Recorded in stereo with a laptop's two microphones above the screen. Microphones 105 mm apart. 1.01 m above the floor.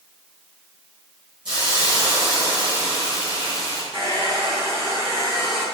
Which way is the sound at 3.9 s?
55° right (ahead or behind).